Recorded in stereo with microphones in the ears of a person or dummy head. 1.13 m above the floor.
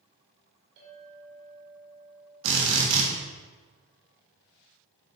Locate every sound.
0.8 s a clink: 60° right (ahead or behind), 2.5 m
2.4 s a drill: 75° right (ahead or behind), 1.7 m